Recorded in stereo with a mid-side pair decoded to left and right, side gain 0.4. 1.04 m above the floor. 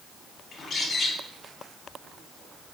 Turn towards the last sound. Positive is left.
turn(degrees=50)